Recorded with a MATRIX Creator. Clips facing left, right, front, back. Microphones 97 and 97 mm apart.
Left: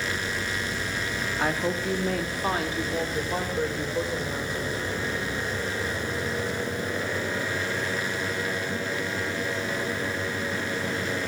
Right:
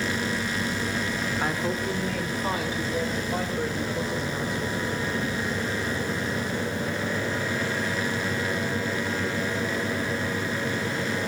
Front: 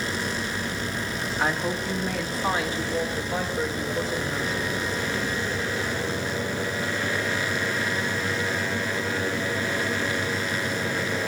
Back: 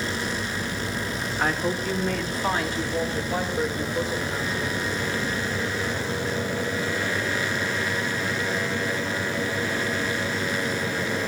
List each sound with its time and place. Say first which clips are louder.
1.4 s a woman speaking: left 3 dB, back 1 dB; 80° left, 2 m; by 4.8 s 95° left, 5.5 m